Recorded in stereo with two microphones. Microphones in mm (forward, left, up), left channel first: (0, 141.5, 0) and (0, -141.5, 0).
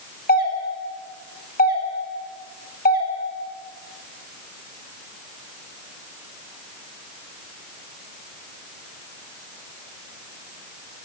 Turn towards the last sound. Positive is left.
turn(degrees=35)  # may be behind; listen again after turning